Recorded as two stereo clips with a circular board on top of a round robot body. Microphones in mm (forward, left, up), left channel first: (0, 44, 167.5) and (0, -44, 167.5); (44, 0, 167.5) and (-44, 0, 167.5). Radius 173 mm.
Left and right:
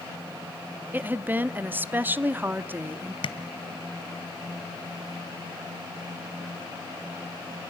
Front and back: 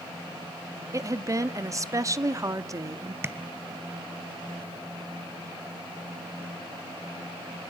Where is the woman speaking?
150° right, 1.2 m.